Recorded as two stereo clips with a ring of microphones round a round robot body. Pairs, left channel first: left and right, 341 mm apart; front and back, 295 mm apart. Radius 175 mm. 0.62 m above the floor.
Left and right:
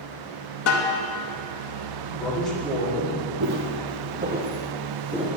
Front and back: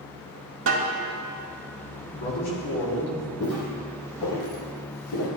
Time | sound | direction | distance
0.7 | a snare drum | 135° left | 0.8 m
2.1 | a man speaking | straight ahead | 1.6 m
3.4 | footsteps | 45° right | 1.1 m